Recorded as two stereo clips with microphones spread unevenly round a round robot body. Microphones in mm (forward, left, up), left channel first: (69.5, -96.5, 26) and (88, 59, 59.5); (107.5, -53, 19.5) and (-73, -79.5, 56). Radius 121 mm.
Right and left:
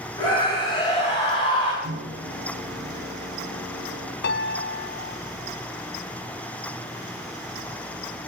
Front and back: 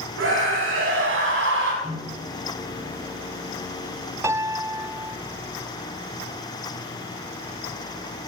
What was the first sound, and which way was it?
A scream, 170° right.